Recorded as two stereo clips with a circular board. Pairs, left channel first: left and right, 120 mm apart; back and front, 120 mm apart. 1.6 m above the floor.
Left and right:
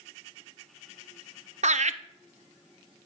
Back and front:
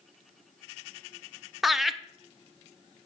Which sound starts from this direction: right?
Laughter, at 1.6 s.